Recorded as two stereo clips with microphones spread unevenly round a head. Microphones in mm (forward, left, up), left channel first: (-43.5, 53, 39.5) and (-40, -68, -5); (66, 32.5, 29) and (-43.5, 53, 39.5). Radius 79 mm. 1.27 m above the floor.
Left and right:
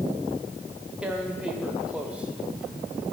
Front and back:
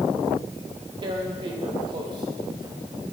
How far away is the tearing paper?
About 0.6 m.